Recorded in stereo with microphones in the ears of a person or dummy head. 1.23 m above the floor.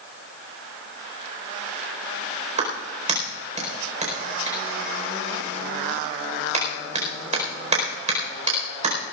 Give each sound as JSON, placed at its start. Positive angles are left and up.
{"t": 2.6, "sound": "a clap", "side_deg": -40, "distance_m": 4.5}